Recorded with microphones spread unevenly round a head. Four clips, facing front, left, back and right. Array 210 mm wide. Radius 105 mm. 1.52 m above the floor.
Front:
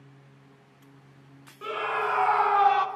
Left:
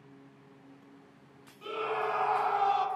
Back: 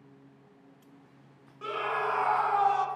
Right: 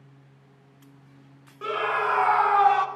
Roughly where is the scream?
Right.